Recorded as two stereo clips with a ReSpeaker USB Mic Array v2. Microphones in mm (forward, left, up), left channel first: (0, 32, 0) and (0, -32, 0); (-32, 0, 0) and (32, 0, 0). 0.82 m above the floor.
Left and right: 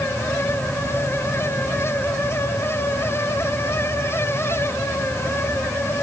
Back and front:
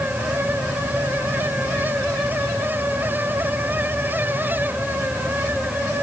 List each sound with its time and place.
Only background noise.